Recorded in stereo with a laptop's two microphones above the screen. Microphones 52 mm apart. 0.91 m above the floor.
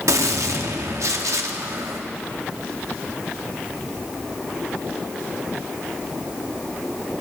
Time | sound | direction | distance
0.1 | a gunshot | 80° right | 1.0 m